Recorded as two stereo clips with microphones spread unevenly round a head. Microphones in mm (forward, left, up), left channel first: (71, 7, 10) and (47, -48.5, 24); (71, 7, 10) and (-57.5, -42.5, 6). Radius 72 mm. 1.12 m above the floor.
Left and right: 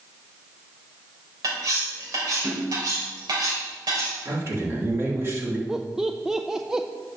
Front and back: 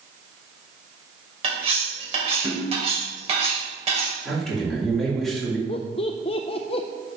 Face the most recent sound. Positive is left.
turn(degrees=-25)